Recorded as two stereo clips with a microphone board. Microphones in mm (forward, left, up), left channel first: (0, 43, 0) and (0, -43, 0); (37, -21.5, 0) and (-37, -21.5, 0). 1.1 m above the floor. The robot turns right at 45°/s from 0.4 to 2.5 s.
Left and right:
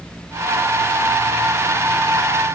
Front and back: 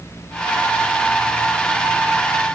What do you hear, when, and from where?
Only background noise.